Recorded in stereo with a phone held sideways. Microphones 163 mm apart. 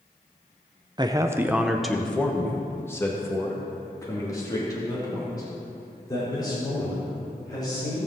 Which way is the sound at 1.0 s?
25° right (ahead or behind).